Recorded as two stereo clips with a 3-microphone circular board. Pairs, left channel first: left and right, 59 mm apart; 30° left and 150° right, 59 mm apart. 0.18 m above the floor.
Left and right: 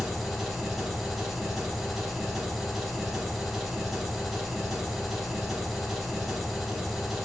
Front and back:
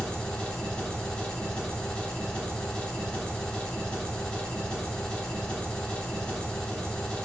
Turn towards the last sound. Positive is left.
turn(degrees=-10)